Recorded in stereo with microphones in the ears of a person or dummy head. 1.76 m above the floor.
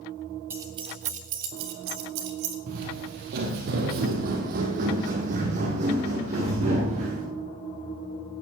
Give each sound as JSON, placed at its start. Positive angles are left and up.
{"t": 0.5, "sound": "keys jangling", "side_deg": -15, "distance_m": 1.0}
{"t": 2.7, "sound": "footsteps", "side_deg": -40, "distance_m": 2.5}